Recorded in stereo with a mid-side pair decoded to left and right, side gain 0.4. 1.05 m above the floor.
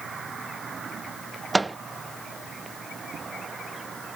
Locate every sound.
1.5 s a microwave: 25° right